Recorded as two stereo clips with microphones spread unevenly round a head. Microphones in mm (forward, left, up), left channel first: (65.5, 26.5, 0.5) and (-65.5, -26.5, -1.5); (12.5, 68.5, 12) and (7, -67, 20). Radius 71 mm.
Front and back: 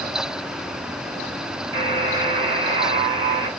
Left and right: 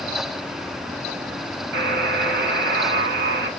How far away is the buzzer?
About 3 m.